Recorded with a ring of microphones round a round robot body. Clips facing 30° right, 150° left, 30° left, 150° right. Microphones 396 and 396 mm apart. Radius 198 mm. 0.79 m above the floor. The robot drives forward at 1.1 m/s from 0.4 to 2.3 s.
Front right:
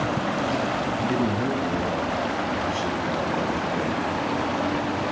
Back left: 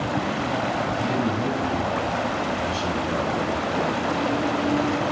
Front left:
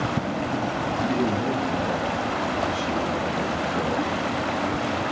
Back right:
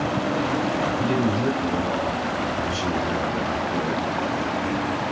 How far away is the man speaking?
About 8 m.